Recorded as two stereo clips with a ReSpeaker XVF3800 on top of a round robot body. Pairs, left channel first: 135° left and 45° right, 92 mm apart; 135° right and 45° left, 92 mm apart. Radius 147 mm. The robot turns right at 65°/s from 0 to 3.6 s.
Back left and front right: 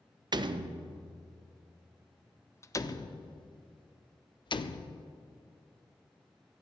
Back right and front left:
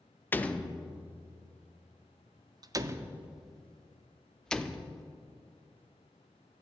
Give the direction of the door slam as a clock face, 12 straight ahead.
2 o'clock.